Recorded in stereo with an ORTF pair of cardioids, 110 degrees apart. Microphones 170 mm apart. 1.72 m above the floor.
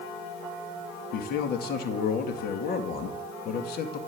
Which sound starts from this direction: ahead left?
A man speaking, at 1.1 s.